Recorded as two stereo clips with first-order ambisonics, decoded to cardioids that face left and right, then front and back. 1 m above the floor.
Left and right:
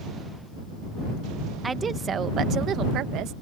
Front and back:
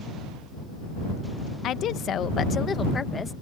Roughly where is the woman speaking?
Ahead.